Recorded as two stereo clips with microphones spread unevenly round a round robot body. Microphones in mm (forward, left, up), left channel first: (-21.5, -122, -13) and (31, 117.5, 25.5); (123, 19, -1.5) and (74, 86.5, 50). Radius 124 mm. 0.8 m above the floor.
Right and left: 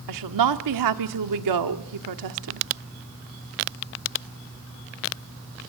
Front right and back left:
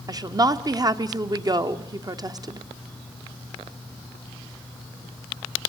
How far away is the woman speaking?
About 1.7 m.